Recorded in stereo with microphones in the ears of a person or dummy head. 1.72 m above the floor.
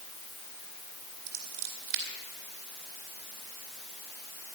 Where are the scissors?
55° right (ahead or behind), 2.5 m.